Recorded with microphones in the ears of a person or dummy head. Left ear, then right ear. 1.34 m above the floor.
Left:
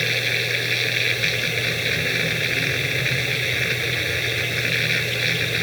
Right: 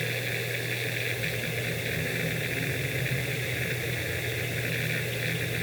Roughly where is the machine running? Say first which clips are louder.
Left 10 dB; left.